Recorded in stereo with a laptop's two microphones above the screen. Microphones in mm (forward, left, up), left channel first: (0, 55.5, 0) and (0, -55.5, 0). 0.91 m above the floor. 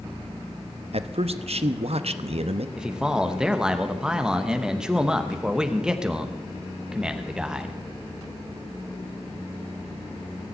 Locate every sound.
0.9 s a man speaking: 65° right (ahead or behind), 0.9 m
2.8 s a man speaking: 5° right (ahead or behind), 1.0 m